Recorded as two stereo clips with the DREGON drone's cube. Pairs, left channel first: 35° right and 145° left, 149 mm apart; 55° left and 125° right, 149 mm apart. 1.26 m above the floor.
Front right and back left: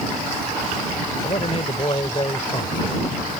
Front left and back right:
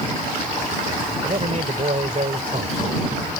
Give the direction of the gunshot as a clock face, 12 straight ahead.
No gunshot in this recording.